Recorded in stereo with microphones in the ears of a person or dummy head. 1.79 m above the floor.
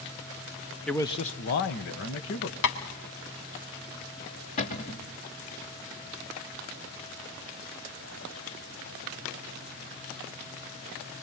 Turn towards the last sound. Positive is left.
turn(degrees=35)  # may be behind; listen again after turning